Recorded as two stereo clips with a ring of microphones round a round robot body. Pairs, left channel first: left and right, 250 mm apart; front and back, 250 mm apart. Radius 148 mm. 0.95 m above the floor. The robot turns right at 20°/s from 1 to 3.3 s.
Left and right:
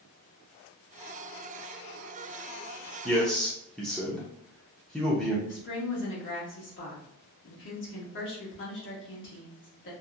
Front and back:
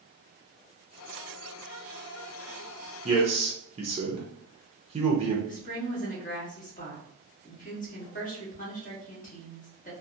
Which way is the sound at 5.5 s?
55° left.